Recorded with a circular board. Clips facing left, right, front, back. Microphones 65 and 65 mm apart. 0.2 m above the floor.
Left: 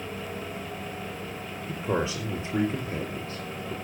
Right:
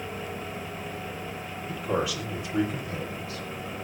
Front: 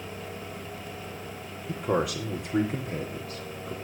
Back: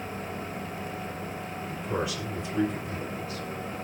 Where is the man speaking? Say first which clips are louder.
Even, front 5 dB; 30° left, 5 m; by 3.7 s 40° left, 5 m.